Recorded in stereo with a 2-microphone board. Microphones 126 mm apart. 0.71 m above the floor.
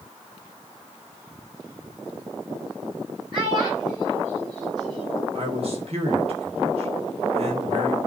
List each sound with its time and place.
3.3 s a child speaking: 35° right (ahead or behind), 8 m; by 5.2 s 40° right (ahead or behind), 6.5 m
5.3 s a man speaking: 55° right (ahead or behind), 3.5 m